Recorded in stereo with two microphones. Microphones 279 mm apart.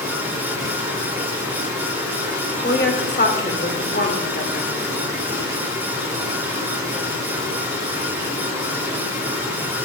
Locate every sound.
0.0 s running water: 10° right (ahead or behind), 6 m
2.6 s a woman speaking: 40° left (ahead or behind), 1.9 m